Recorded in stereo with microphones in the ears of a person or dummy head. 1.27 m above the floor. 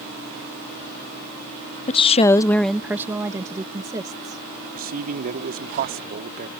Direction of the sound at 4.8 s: 45° right (ahead or behind).